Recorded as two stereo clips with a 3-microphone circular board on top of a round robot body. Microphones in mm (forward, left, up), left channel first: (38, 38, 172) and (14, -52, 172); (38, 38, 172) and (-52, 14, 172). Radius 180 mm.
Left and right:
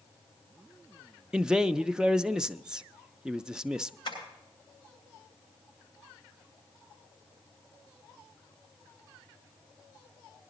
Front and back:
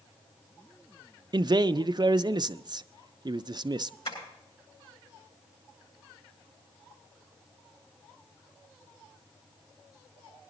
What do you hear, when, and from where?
1.3 s a man speaking: 175° left, 0.5 m
4.0 s tapping: 35° left, 9 m